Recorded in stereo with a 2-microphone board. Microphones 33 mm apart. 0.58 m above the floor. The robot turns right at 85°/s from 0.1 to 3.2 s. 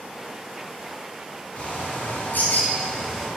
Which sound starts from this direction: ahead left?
A bird, at 1.6 s.